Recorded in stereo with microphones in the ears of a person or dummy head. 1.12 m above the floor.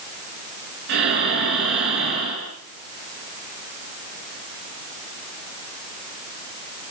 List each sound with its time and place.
0.9 s breathing: 65° right (ahead or behind), 9 m